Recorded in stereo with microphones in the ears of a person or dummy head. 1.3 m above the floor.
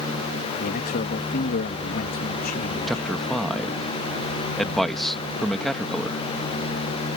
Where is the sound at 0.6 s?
50° left (ahead or behind).